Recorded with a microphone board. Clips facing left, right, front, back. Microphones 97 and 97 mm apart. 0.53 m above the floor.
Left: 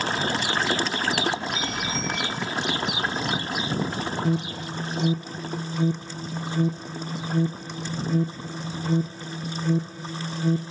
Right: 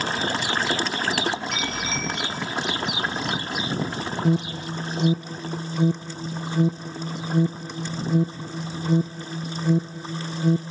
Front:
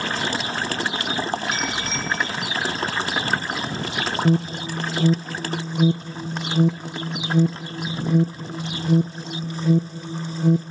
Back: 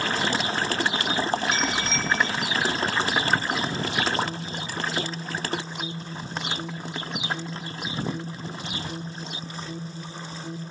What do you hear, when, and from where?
1.5 s a bicycle bell: 85° right, 8 m
4.2 s an alarm: 15° right, 0.6 m